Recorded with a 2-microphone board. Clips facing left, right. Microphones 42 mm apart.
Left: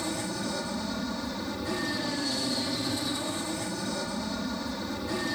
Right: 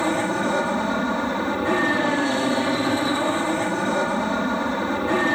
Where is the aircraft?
45° right (ahead or behind).